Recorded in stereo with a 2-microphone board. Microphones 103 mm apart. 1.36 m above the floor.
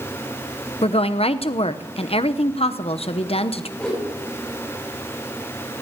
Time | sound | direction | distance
0.8 | a woman speaking | 65° left (ahead or behind) | 0.8 m
3.8 | a whoosh | 5° left (ahead or behind) | 6.5 m